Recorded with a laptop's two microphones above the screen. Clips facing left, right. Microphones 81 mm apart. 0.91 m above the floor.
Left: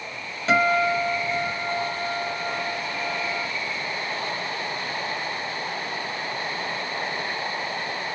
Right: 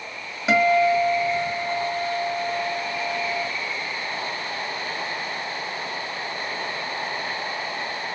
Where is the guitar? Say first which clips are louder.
Right 3 dB; 10° right (ahead or behind), 2.5 m.